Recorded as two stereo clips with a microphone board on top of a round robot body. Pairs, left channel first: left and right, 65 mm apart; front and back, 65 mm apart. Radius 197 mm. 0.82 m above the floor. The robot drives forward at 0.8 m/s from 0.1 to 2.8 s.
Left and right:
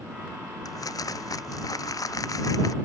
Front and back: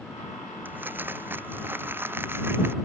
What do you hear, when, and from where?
0.7 s crumpling: 120° left; by 2.7 s 125° left